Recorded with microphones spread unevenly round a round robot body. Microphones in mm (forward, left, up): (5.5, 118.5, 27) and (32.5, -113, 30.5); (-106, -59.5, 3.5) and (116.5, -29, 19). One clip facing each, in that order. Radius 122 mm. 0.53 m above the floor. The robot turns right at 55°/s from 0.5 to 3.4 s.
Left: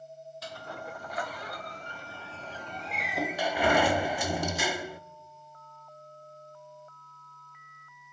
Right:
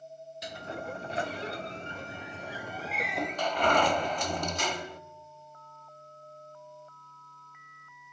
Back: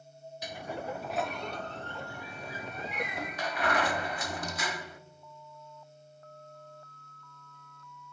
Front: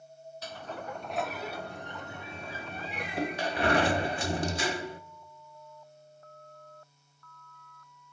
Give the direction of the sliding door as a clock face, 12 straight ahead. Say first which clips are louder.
Right 4 dB, back 3 dB; 4 o'clock.